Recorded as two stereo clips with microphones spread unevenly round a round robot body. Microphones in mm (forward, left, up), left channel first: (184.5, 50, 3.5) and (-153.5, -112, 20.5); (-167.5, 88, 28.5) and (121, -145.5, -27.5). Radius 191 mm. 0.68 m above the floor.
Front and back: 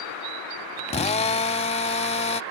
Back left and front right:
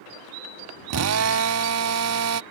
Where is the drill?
40° right.